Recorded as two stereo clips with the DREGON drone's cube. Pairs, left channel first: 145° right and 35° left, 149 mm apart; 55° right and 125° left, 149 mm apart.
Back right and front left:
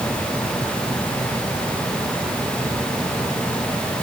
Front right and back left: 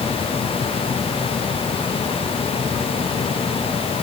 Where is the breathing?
No breathing in this recording.